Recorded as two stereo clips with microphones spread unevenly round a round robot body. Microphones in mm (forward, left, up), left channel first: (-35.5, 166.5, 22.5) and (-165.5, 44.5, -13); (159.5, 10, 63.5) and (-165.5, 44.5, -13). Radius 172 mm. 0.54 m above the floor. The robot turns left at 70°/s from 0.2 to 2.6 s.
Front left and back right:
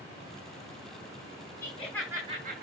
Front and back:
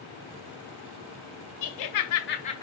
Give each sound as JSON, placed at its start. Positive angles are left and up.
{"t": 1.6, "sound": "laughter", "azimuth_deg": -20, "distance_m": 2.5}